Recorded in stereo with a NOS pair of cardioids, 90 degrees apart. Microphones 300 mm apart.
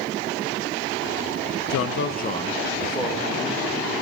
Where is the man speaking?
65° left, 0.7 m; by 4.0 s straight ahead, 3 m.